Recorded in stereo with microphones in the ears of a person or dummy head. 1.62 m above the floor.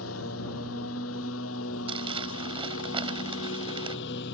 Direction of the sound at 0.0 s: 80° left.